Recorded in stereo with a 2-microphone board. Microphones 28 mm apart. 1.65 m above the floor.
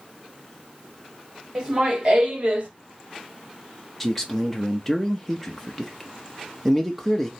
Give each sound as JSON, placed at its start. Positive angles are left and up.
{"t": 1.6, "sound": "laughter", "side_deg": -25, "distance_m": 2.0}
{"t": 4.0, "sound": "a man speaking", "side_deg": 5, "distance_m": 0.8}